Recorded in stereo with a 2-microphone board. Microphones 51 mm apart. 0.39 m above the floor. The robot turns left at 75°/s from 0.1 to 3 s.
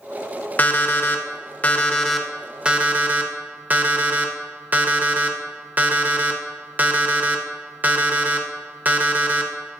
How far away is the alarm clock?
About 0.6 m.